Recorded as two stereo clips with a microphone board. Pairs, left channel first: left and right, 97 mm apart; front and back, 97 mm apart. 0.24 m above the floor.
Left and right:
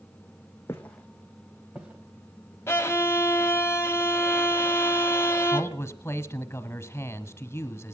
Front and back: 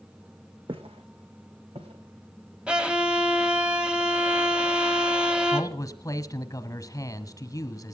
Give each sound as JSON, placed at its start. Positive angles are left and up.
{"t": 0.7, "sound": "footsteps", "azimuth_deg": 150, "distance_m": 1.2}
{"t": 2.7, "sound": "a violin", "azimuth_deg": 110, "distance_m": 1.1}
{"t": 5.5, "sound": "a man speaking", "azimuth_deg": 35, "distance_m": 1.3}